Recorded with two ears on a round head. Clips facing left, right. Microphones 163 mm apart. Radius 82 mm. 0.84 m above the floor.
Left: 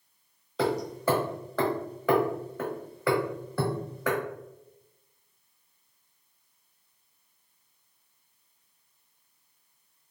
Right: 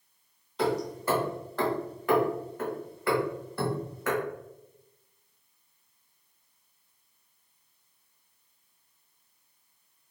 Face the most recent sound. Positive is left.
turn(degrees=65)  # may be behind; listen again after turning